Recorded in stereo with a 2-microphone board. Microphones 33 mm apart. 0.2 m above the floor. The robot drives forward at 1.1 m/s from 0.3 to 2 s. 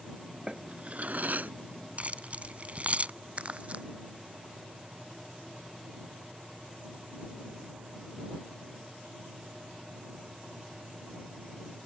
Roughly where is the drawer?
Right.